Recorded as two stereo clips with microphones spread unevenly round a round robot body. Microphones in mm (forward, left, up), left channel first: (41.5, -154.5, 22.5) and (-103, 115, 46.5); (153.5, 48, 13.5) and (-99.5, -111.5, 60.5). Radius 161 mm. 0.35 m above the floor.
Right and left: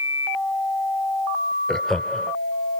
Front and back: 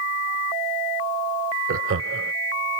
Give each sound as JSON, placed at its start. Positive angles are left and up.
{"t": 1.7, "sound": "laughter", "azimuth_deg": -140}